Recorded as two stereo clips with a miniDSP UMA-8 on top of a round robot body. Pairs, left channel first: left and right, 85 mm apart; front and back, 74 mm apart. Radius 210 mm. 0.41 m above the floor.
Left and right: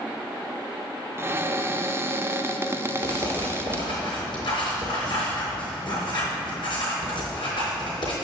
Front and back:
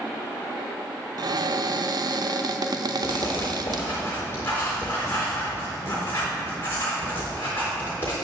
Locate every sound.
1.2 s a cupboard door: 150° right, 0.8 m
3.0 s writing: 60° left, 3.5 m